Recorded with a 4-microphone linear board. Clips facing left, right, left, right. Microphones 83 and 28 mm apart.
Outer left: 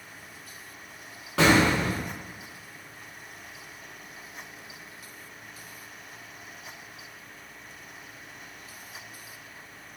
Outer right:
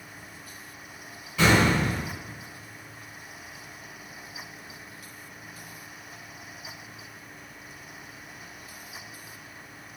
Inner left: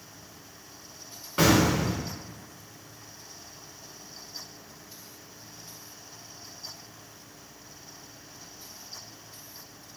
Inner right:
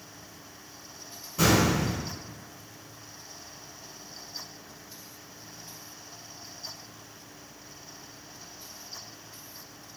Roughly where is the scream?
No scream in this recording.